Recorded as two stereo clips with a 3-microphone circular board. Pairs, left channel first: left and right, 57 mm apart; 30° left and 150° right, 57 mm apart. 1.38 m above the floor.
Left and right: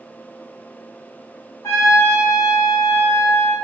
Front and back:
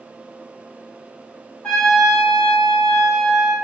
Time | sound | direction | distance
1.6 | a trumpet | 95° left | 1.0 m